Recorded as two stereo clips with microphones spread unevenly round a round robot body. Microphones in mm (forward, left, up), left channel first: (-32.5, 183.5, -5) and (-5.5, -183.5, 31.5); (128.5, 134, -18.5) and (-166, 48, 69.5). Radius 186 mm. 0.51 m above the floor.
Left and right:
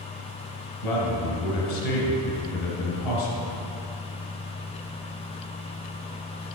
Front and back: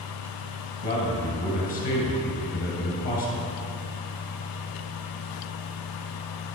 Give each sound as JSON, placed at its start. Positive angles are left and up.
{"t": 0.8, "sound": "a man speaking", "azimuth_deg": 75, "distance_m": 2.5}